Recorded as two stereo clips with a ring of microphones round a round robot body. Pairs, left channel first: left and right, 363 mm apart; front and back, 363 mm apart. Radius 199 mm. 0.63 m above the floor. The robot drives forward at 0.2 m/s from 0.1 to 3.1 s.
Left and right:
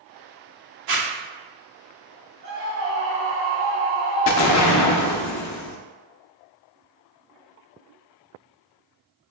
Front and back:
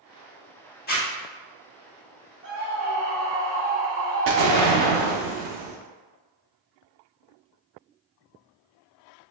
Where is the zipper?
60° right, 1.5 m.